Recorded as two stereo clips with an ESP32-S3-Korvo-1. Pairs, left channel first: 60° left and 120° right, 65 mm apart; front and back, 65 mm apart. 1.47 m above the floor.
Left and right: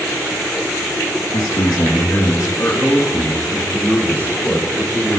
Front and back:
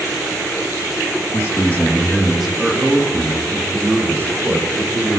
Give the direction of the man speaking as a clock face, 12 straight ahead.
10 o'clock.